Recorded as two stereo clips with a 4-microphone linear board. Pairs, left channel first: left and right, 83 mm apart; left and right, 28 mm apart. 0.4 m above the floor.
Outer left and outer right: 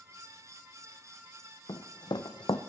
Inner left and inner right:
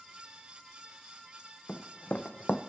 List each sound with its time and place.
1.7 s running footsteps: 65° left (ahead or behind), 0.8 m